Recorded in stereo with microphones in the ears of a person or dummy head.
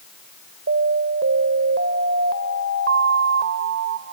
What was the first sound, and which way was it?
An alarm, 70° right (ahead or behind).